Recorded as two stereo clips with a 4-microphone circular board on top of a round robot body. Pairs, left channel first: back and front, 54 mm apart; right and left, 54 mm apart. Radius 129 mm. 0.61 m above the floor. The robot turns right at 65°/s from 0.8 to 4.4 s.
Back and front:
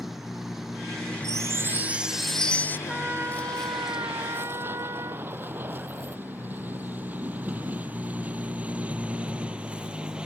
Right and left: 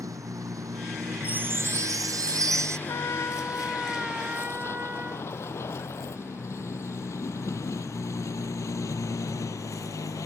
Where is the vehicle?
85° left; by 10.3 s 75° right.